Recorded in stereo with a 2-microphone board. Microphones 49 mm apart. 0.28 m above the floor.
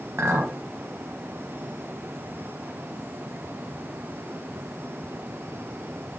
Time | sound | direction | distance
0.2 | a clink | 60° right (ahead or behind) | 0.9 m